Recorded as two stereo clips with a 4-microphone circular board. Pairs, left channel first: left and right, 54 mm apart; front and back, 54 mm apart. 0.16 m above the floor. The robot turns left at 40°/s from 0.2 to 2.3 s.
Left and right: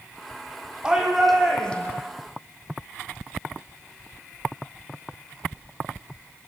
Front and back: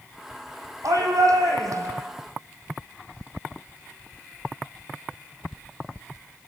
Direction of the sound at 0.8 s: 165° right.